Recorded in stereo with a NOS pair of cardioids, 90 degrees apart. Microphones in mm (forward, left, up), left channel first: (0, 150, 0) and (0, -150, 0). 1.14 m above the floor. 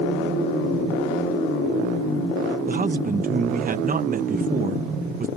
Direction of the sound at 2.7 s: 30° right.